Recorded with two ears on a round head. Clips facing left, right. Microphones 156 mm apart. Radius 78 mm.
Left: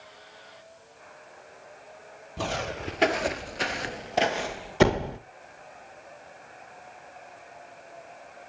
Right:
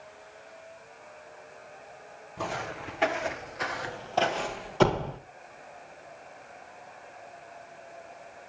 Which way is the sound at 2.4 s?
45° left (ahead or behind).